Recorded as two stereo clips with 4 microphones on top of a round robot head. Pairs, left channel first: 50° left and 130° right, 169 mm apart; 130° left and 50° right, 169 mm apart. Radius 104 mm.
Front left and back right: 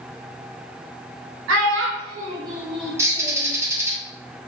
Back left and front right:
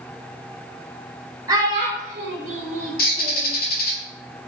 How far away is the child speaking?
About 0.8 m.